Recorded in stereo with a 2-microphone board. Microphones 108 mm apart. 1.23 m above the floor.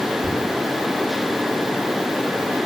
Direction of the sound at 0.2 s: 55° left (ahead or behind).